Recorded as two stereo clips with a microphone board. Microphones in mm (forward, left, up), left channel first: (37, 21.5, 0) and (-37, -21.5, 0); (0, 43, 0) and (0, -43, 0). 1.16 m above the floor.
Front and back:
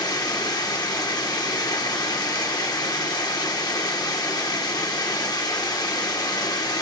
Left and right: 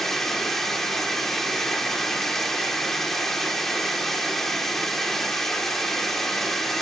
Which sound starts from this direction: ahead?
Running water, at 0.0 s.